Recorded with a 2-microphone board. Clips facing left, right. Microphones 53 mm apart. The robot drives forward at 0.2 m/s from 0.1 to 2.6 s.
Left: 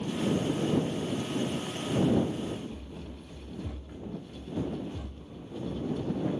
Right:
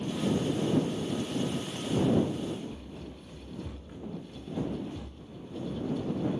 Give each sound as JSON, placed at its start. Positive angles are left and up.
{"t": 2.1, "sound": "running footsteps", "side_deg": 0, "distance_m": 3.0}